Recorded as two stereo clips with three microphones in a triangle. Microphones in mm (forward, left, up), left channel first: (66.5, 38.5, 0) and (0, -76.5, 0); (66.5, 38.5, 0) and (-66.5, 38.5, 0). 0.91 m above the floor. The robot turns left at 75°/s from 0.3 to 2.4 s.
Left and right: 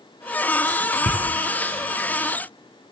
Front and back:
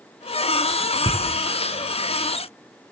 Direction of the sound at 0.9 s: 120° right.